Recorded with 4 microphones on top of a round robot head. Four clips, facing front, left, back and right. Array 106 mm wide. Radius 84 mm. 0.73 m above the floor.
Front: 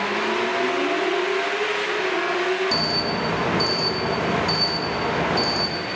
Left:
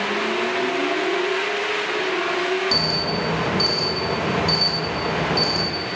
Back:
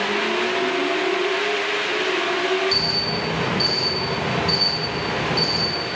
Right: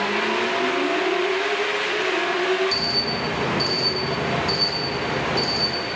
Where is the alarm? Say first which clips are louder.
Left 3 dB, front 2 dB; 30° left, 3 m.